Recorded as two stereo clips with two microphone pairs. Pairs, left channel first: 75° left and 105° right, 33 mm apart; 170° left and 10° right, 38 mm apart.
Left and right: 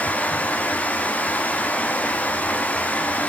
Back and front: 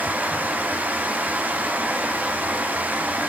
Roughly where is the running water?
Ahead left.